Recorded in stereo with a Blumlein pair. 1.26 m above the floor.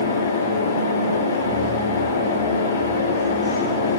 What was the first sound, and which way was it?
A fan, 70° left.